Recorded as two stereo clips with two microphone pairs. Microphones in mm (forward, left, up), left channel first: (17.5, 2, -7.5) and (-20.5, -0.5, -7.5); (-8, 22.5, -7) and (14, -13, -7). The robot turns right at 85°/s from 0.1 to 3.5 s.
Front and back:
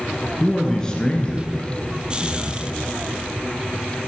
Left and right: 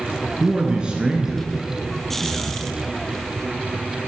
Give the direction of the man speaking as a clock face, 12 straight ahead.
2 o'clock.